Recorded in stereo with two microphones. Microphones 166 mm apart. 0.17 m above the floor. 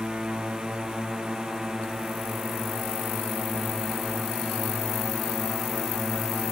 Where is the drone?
5° right (ahead or behind); by 6.5 s centre (ahead or behind).